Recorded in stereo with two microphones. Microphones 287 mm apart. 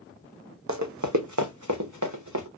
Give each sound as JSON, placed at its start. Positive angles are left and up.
{"t": 0.7, "sound": "running footsteps", "side_deg": -75, "distance_m": 0.8}